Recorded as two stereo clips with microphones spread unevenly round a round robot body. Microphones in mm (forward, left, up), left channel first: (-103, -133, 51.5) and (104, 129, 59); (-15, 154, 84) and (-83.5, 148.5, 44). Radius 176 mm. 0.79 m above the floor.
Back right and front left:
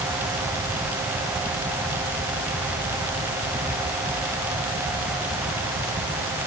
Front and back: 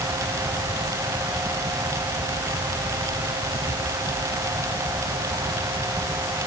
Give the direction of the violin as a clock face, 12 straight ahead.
I don't hear a violin.